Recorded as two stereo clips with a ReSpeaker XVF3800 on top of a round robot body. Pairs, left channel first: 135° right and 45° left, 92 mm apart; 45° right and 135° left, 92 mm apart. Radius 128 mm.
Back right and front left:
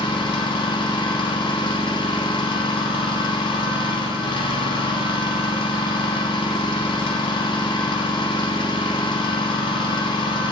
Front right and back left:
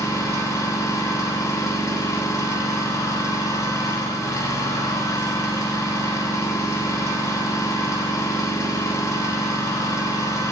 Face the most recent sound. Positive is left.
turn(degrees=-105)